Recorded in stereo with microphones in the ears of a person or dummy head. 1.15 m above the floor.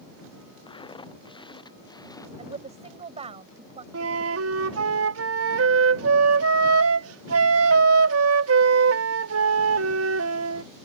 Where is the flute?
80° right.